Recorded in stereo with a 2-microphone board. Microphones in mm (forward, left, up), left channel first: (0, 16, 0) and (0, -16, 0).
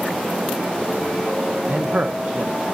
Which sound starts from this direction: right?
A man speaking, at 1.6 s.